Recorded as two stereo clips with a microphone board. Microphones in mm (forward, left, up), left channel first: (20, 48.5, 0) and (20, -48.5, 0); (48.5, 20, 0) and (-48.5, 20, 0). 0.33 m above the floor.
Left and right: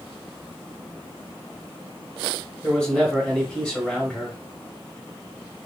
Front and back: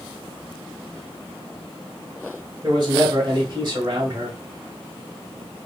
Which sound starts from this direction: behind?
A man speaking, at 2.6 s.